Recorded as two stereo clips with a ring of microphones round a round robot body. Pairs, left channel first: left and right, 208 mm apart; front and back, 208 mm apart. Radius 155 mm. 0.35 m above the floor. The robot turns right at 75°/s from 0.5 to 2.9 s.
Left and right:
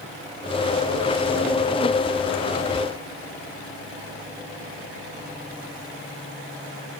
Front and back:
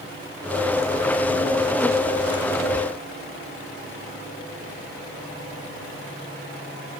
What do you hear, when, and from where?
Only background noise.